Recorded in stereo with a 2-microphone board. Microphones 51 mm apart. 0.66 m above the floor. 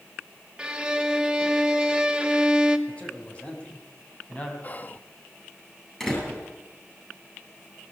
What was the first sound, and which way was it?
A violin, 20° right (ahead or behind).